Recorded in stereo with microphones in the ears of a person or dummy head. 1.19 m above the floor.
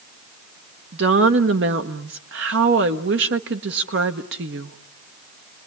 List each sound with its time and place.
0.9 s a woman speaking: 60° right (ahead or behind), 1.1 m